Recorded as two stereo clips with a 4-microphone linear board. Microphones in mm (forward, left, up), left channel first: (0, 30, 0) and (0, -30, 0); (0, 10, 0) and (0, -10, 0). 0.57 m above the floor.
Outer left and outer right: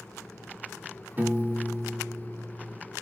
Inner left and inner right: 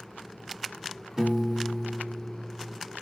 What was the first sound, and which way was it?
A piano, 30° right (ahead or behind).